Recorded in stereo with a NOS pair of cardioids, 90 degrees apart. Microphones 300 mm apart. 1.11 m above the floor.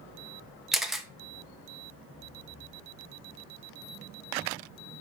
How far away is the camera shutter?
About 1.0 m.